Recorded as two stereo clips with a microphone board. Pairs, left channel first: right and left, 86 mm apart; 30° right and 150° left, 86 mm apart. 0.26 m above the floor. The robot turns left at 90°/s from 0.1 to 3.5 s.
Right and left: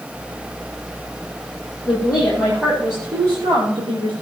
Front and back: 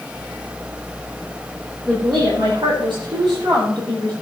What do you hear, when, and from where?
1.9 s a woman speaking: 125° right, 6 m; by 4.1 s 85° left, 6 m